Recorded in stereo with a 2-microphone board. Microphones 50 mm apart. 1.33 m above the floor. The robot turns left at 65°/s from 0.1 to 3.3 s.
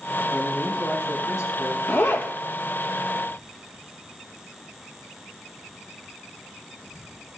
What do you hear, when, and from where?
0.3 s a man speaking: 175° left, 5.5 m; by 1.8 s 80° left, 5.5 m
1.9 s a zipper: 50° left (ahead or behind), 1.1 m; by 2.3 s 45° left (ahead or behind), 1.1 m